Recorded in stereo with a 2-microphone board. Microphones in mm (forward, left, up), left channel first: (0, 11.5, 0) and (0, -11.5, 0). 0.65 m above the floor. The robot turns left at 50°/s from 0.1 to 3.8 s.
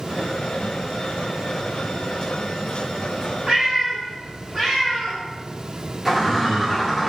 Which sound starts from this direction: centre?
A bird, at 6.0 s.